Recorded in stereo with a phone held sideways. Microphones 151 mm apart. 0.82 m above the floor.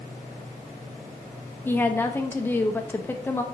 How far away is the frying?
I don't hear frying.